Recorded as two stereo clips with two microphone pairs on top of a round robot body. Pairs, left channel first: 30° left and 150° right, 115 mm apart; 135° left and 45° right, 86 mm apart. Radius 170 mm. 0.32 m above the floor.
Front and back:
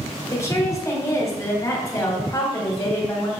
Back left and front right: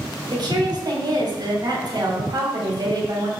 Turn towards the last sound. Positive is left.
turn(degrees=-30)